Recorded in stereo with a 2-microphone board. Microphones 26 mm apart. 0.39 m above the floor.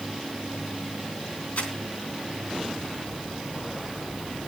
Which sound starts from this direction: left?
Crumpling, at 1.6 s.